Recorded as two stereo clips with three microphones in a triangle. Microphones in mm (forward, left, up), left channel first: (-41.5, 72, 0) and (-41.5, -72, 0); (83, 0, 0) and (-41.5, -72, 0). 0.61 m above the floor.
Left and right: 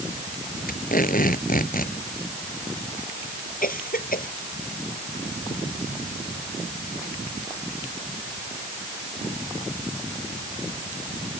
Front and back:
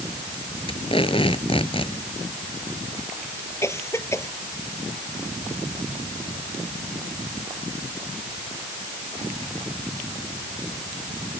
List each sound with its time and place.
0.7 s tape being pulled: 80° left
3.6 s a cough: 100° left